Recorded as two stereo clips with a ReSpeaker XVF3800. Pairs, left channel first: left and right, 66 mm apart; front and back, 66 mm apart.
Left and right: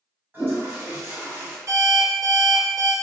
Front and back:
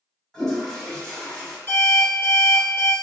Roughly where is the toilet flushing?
Right.